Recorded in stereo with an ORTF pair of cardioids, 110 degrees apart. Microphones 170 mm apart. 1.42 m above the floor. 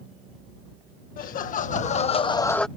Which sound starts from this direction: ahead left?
Laughter, at 1.2 s.